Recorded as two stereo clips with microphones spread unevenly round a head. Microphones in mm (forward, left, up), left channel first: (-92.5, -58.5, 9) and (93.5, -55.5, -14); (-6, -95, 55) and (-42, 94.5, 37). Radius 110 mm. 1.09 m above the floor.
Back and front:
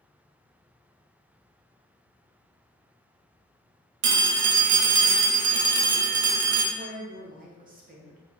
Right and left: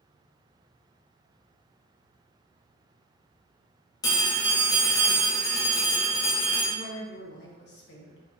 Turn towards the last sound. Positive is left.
turn(degrees=-40)